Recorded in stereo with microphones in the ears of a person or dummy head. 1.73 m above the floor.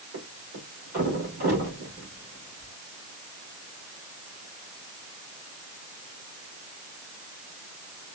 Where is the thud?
50° right (ahead or behind), 2.5 m.